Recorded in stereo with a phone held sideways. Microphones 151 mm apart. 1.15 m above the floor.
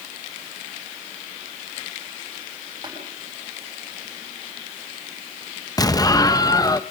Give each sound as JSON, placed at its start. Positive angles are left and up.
{"t": 2.8, "sound": "tapping", "side_deg": -30, "distance_m": 7.5}
{"t": 5.8, "sound": "an explosion", "side_deg": 25, "distance_m": 0.6}